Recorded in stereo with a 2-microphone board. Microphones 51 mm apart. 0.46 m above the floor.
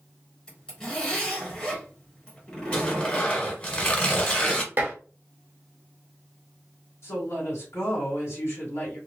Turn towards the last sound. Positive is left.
turn(degrees=55)  # may be behind; listen again after turning